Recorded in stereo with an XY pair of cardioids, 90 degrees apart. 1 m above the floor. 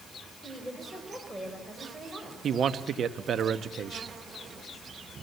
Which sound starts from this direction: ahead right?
A man speaking, at 2.4 s.